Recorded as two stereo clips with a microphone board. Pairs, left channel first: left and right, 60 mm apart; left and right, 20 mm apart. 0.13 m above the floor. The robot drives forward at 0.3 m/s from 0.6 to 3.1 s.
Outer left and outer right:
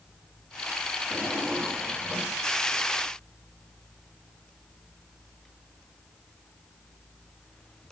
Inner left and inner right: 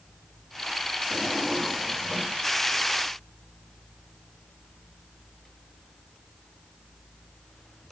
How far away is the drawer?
About 3.5 m.